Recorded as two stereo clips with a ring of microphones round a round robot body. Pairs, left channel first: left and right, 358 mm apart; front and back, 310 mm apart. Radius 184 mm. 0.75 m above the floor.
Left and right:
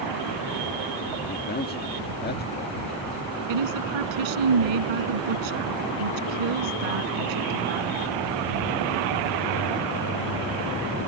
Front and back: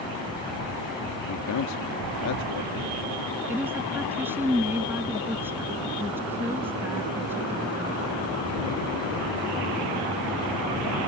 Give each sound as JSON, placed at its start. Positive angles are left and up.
{"t": 1.3, "sound": "a man speaking", "azimuth_deg": 30}
{"t": 3.5, "sound": "a woman speaking", "azimuth_deg": -95}